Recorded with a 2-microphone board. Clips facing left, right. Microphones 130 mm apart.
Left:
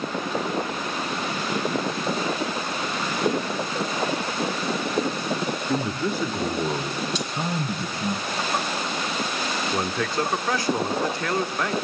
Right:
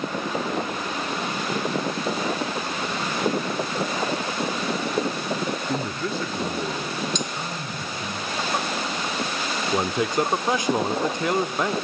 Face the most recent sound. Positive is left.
turn(degrees=-20)  # may be behind; listen again after turning